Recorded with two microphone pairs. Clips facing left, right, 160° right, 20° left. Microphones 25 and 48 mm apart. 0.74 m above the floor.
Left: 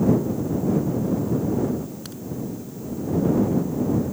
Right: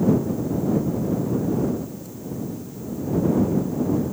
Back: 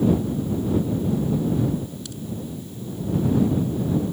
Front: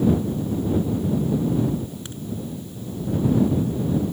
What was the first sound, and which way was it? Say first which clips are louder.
A crack: left 1 dB, even; 80° left.